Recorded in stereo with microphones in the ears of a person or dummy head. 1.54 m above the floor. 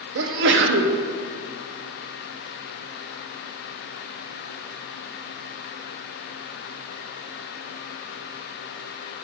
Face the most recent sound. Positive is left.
turn(degrees=-75)  # may be behind; listen again after turning